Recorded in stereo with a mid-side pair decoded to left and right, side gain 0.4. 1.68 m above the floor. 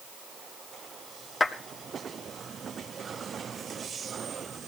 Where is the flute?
No flute in this recording.